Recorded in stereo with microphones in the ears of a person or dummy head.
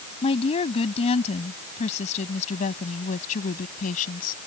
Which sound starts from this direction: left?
A woman speaking, at 0.2 s.